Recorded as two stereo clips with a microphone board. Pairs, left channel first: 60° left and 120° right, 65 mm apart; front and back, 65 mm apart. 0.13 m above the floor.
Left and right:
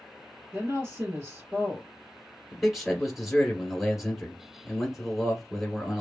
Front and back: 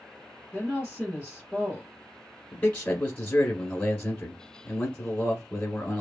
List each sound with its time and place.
0.5 s a woman speaking: 110° right, 1.5 m
2.5 s a man speaking: 45° right, 1.2 m